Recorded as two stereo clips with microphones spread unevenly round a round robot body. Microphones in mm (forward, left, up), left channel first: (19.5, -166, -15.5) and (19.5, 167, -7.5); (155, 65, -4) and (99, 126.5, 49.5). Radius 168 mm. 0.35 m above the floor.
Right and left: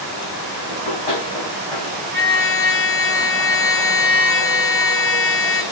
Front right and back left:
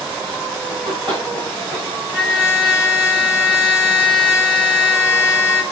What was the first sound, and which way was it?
Running footsteps, 155° right.